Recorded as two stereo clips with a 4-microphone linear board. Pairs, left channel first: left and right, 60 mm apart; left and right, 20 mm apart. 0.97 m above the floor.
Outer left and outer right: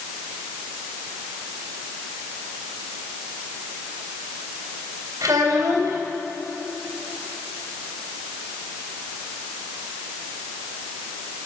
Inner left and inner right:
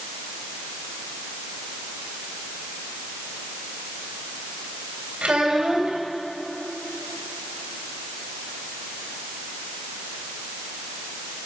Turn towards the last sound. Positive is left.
turn(degrees=-75)  # may be behind; listen again after turning